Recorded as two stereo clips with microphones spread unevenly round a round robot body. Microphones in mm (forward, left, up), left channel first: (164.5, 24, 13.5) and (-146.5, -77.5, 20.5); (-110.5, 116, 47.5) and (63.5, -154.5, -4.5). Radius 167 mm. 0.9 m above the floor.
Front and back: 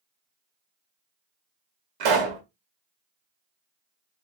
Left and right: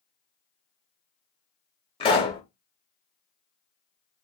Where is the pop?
165° right, 0.9 m.